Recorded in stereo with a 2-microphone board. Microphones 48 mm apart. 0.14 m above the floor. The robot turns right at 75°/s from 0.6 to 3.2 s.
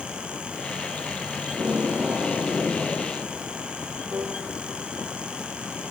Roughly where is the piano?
Right.